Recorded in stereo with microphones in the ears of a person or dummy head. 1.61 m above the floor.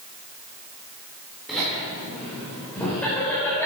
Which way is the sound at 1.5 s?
Centre (ahead or behind).